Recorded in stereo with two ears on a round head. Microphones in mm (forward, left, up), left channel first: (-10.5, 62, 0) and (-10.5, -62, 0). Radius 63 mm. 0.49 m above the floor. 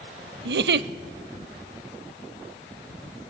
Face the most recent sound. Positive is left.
turn(degrees=-80)